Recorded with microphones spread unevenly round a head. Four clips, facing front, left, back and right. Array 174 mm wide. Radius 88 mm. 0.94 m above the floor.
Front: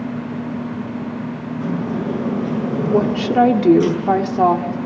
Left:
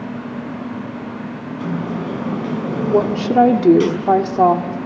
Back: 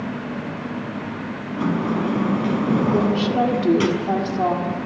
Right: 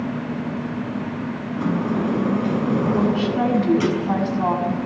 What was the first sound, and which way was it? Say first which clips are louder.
A sliding door: right 2 dB, back 2 dB; 175° left.